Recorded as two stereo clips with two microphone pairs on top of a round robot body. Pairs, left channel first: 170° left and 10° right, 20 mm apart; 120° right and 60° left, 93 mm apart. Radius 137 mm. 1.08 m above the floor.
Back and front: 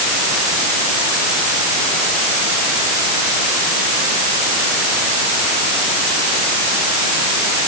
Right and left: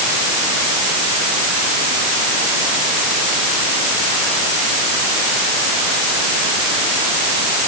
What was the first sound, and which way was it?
Only background noise.